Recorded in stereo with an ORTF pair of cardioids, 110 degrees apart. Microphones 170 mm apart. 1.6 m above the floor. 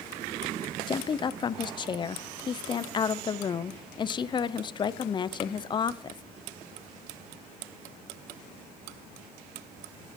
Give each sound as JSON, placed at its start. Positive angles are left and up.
{"t": 0.9, "sound": "a woman speaking", "azimuth_deg": 30, "distance_m": 0.5}